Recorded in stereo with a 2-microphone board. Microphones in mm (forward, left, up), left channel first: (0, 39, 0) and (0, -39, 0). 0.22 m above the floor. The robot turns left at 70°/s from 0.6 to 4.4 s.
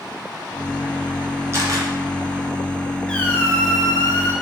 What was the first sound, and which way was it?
A camera shutter, 35° right (ahead or behind).